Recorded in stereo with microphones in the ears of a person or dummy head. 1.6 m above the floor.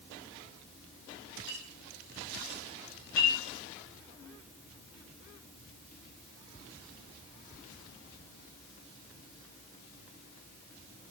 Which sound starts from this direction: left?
A clink, at 1.5 s.